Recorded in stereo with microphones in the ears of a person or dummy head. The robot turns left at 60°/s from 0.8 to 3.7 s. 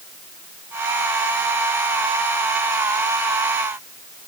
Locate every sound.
Only background noise.